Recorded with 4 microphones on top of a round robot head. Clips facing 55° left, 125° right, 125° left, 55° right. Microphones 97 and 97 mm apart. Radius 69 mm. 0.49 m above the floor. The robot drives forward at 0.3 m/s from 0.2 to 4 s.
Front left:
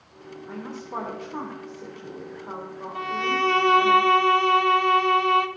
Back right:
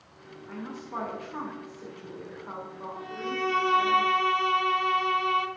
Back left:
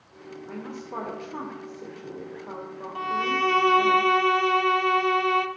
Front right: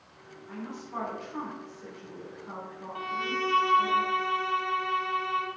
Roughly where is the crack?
I don't hear a crack.